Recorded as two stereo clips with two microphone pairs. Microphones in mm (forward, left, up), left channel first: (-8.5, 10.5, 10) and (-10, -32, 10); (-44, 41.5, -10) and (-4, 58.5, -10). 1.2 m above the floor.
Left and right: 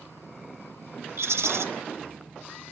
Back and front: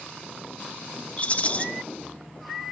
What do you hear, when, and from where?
1.2 s a rattle: 100° right, 1.0 m